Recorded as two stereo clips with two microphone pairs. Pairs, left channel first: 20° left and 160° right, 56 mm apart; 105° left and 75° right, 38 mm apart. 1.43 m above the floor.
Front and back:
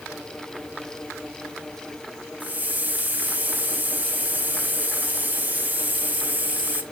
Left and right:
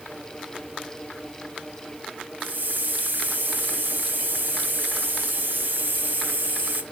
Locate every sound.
2.4 s a hiss: 100° right, 1.1 m